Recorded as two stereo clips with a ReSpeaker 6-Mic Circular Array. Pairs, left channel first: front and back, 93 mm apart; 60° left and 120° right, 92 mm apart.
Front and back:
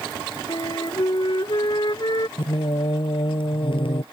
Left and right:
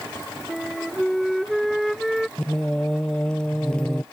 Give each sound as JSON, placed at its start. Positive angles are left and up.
{"t": 0.5, "sound": "a flute", "azimuth_deg": -30}
{"t": 2.4, "sound": "singing", "azimuth_deg": -20}